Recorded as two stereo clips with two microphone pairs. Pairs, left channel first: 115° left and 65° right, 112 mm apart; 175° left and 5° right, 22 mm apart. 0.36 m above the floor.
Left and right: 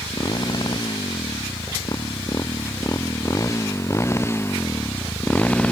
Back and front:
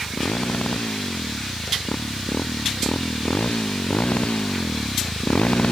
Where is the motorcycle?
165° left; by 5.7 s 165° right.